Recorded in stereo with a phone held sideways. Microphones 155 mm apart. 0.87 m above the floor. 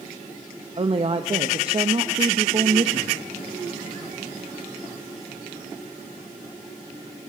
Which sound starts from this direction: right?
A woman speaking, at 0.8 s.